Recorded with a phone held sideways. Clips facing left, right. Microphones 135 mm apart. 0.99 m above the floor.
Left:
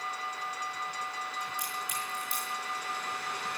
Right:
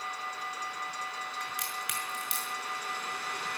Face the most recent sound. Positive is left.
turn(degrees=-85)